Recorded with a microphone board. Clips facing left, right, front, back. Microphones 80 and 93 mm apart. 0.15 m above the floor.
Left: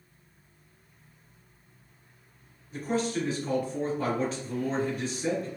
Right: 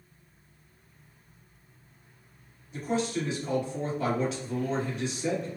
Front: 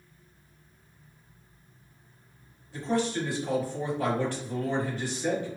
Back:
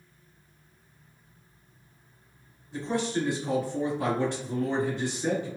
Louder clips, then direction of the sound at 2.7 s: Even, front 1 dB; 120° left.